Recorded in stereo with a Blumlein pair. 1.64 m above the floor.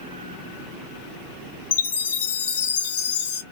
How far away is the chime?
About 0.5 m.